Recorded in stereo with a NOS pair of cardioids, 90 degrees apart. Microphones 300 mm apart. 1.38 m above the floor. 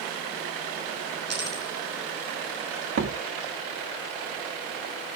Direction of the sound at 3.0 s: 45° right.